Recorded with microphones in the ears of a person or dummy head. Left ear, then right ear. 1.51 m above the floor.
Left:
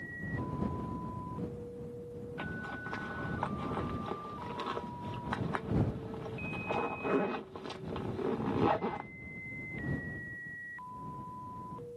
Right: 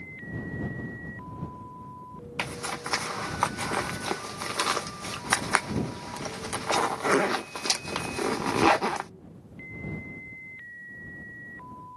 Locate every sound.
2.4 s a zipper: 65° right (ahead or behind)